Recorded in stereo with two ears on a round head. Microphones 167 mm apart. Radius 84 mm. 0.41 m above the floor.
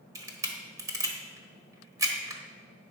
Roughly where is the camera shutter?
Centre.